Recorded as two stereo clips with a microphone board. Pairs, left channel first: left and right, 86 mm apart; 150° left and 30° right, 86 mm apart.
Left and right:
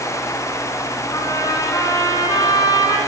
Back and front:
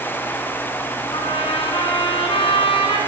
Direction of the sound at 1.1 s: 140° left.